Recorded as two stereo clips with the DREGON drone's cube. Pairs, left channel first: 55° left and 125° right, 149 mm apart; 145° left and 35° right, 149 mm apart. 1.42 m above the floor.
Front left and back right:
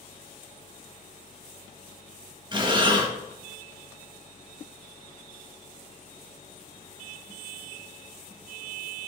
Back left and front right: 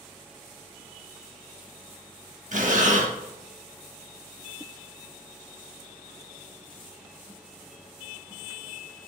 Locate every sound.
2.5 s breathing: 65° right, 1.4 m